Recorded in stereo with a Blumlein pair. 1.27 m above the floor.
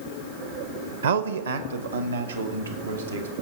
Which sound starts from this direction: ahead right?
A man speaking, at 1.0 s.